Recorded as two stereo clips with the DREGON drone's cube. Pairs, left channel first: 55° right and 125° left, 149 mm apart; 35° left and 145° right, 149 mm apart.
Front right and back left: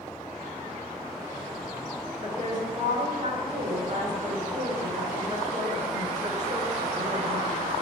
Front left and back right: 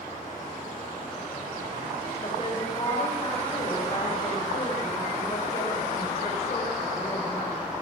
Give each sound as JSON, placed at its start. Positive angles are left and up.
{"t": 2.2, "sound": "a woman speaking", "azimuth_deg": 85, "distance_m": 2.5}